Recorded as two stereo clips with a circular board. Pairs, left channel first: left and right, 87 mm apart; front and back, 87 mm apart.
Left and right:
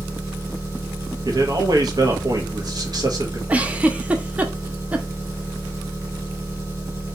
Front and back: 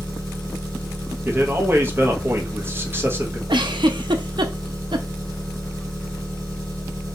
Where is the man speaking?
120° right, 1.1 m.